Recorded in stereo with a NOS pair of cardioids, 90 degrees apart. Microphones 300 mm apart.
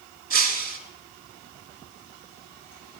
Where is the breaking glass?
50° right, 4 m.